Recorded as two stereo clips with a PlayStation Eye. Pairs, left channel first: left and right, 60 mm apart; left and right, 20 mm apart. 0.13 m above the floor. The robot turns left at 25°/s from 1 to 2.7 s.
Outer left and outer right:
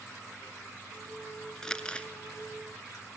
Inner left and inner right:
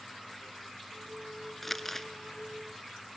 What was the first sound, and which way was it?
Crumpling, 10° left (ahead or behind).